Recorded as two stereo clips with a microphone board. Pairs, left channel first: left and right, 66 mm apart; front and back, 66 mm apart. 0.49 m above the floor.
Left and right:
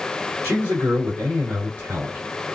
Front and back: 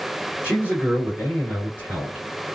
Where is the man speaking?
130° right, 1.6 m.